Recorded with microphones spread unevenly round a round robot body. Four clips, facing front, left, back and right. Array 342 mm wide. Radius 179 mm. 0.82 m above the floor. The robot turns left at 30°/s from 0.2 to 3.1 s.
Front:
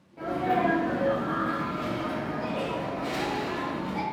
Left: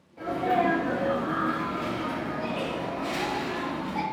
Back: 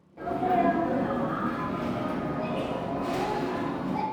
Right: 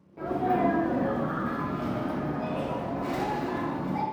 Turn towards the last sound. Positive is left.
turn(degrees=-160)